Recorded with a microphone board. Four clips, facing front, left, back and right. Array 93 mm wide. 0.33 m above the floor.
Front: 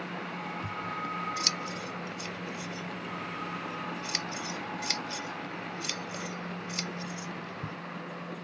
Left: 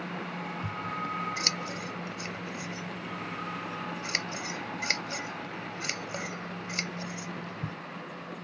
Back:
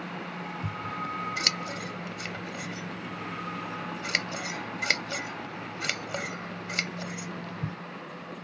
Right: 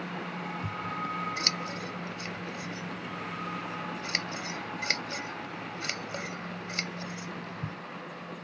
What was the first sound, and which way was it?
Scissors, 175° left.